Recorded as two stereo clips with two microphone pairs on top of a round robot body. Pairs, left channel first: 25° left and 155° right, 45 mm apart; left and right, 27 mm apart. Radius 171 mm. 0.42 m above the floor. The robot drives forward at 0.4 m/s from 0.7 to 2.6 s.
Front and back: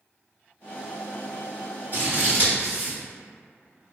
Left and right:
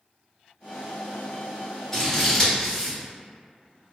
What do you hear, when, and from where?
1.9 s scissors: 160° left, 2.0 m; by 3.0 s 165° left, 2 m